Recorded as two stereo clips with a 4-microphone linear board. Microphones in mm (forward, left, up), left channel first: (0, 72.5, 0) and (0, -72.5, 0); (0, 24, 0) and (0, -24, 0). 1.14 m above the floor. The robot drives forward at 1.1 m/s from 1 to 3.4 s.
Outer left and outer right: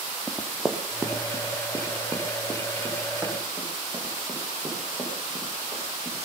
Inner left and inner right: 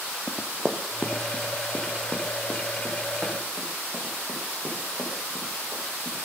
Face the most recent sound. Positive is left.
turn(degrees=-25)  # may be behind; listen again after turning